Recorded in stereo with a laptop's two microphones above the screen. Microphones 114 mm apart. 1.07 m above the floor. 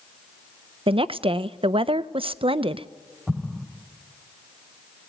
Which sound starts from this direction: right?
A woman speaking, at 0.9 s.